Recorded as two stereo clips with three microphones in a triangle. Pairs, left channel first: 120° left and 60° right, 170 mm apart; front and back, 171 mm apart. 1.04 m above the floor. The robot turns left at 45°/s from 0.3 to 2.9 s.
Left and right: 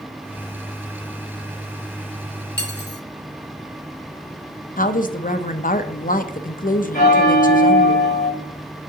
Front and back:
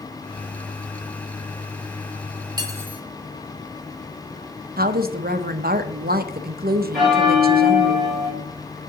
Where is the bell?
90° left, 4 m.